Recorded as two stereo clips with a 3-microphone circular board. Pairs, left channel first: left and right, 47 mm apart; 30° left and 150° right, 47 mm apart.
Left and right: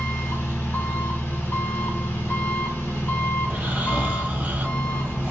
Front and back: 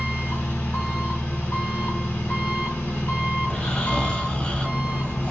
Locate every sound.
0.0 s an engine running: 65° left, 1.6 m
3.4 s snoring: 40° right, 1.1 m